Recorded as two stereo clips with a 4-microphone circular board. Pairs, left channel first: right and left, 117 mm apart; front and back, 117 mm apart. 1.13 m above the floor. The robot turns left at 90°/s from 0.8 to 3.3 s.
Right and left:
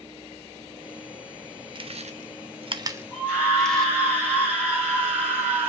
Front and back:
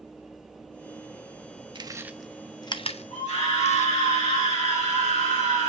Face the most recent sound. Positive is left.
turn(degrees=10)